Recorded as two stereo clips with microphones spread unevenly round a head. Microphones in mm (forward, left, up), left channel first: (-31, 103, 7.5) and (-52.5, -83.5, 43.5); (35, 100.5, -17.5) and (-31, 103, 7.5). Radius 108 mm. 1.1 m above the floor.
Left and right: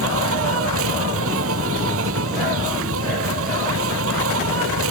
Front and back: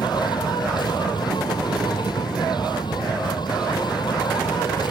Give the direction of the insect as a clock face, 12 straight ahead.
2 o'clock.